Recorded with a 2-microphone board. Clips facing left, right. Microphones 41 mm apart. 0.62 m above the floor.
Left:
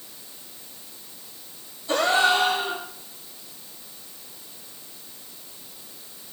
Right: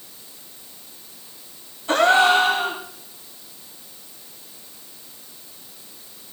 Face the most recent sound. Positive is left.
turn(degrees=-55)  # may be behind; listen again after turning